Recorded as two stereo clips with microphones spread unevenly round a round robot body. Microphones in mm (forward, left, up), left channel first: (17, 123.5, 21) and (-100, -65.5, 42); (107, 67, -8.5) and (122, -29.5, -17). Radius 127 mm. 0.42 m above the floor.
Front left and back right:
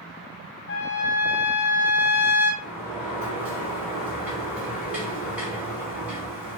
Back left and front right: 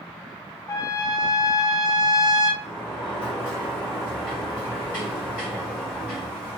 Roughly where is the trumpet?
Ahead left.